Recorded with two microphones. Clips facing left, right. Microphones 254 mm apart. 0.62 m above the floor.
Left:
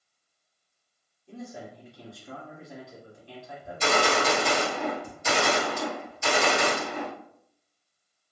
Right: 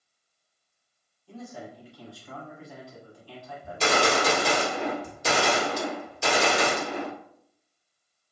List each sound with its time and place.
1.3 s a man speaking: 20° left (ahead or behind), 1.1 m
3.6 s a gunshot: 70° right (ahead or behind), 1.0 m